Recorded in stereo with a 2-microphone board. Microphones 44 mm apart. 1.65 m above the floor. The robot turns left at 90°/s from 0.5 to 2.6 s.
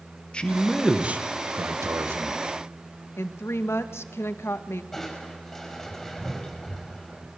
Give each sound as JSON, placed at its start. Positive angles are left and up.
{"t": 0.3, "sound": "a man speaking", "azimuth_deg": 20, "distance_m": 2.0}
{"t": 3.2, "sound": "a woman speaking", "side_deg": 75, "distance_m": 1.9}
{"t": 4.9, "sound": "crushing", "side_deg": 5, "distance_m": 6.0}